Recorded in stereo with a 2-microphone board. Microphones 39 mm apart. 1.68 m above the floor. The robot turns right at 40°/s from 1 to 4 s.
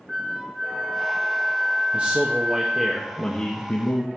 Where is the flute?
10° right (ahead or behind), 0.7 m; by 2.9 s 20° right (ahead or behind), 0.7 m.